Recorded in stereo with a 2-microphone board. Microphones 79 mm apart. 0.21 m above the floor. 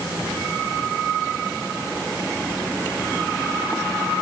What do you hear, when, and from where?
Only background noise.